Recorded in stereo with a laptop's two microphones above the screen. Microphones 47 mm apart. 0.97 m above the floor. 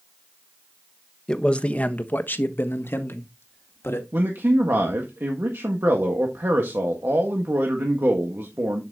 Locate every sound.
1.3 s a man speaking: 20° left (ahead or behind), 1.2 m; by 4.0 s 65° left (ahead or behind), 2 m
4.1 s a man speaking: 55° right (ahead or behind), 1.5 m